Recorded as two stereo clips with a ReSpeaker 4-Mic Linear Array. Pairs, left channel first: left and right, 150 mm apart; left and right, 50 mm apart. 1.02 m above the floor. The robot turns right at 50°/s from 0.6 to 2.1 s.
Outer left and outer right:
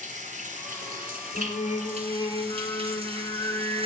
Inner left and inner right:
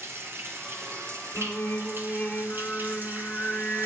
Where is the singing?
120° left, 1.8 m; by 3.9 s 160° left, 1.8 m.